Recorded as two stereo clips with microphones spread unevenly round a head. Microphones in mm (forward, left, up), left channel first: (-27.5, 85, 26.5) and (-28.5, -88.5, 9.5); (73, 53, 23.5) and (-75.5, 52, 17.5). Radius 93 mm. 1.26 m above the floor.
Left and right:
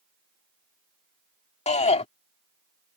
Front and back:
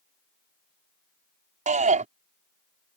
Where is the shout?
145° left.